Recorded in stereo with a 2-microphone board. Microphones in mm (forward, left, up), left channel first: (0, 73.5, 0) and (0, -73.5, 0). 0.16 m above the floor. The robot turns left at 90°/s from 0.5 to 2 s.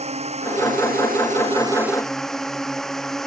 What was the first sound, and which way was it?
A drone, 45° right.